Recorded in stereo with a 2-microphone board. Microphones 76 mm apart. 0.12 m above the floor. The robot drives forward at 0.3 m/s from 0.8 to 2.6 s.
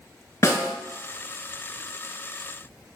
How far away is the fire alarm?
I don't hear a fire alarm.